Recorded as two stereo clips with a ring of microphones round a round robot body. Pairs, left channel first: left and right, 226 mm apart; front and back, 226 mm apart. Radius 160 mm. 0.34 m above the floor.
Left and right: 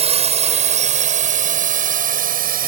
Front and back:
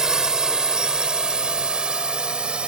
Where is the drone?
95° right.